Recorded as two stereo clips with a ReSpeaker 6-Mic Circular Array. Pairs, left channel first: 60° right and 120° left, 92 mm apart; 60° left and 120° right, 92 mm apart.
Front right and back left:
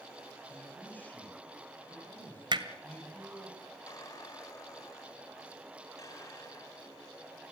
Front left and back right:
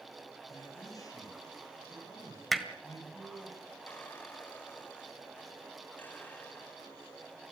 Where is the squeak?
10° right, 2.5 m.